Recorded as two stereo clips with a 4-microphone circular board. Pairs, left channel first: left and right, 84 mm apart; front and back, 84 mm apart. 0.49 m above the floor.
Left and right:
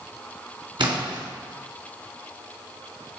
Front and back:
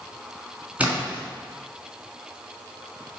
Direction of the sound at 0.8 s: 110° right.